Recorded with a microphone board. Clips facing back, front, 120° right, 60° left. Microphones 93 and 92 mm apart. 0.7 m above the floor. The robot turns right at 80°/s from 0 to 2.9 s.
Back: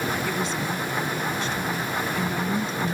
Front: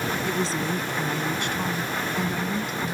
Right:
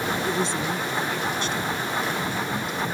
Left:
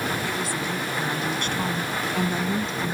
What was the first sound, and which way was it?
A woman speaking, 75° right.